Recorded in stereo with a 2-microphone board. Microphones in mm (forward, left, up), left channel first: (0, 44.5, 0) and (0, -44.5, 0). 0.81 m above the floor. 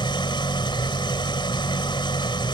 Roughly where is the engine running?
Left.